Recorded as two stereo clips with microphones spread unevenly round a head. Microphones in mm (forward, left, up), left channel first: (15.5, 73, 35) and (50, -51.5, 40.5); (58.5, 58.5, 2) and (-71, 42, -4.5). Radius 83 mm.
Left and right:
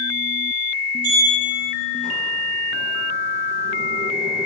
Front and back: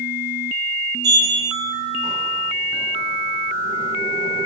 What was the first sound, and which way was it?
A sliding door, 105° right.